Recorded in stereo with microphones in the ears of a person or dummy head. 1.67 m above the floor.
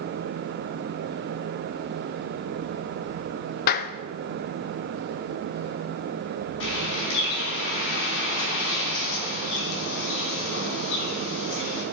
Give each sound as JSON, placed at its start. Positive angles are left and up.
{"t": 3.7, "sound": "a clap", "side_deg": 55, "distance_m": 0.7}
{"t": 6.6, "sound": "a bird", "side_deg": 75, "distance_m": 4.0}